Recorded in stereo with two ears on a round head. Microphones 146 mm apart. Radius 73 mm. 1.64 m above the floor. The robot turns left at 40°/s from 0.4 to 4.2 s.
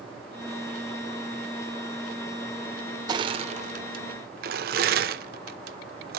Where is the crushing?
25° right (ahead or behind), 0.8 m; by 6.2 s 60° right (ahead or behind), 0.8 m.